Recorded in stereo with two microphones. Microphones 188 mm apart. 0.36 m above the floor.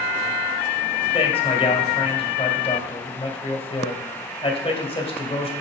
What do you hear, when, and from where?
1.1 s a man speaking: 30° left (ahead or behind), 1.6 m